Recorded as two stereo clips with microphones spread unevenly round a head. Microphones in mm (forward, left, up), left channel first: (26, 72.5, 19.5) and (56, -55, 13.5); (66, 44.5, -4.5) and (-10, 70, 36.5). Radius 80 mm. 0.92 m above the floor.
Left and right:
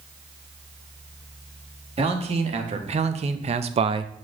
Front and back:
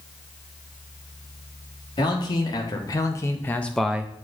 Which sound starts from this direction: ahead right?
A man speaking, at 2.0 s.